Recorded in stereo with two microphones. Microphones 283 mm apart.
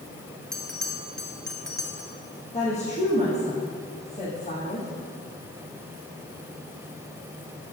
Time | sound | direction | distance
0.5 | a bell | centre (ahead or behind) | 1.3 m
2.5 | a woman speaking | 25° left (ahead or behind) | 3 m